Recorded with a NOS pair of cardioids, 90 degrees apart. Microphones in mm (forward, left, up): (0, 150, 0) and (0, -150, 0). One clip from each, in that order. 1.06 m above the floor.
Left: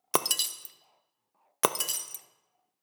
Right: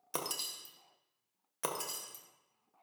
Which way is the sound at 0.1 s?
50° left.